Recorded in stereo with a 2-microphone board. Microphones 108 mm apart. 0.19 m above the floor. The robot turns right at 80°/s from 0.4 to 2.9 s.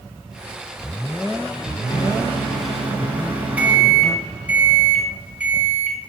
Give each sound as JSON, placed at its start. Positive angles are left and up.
{"t": 1.9, "sound": "a microwave", "azimuth_deg": 120, "distance_m": 1.1}